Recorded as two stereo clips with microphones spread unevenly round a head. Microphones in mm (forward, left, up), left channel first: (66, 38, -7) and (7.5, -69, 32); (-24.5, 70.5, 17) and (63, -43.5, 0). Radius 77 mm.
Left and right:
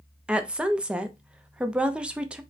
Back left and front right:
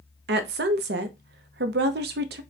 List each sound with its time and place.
0.3 s a woman speaking: 45° right, 0.6 m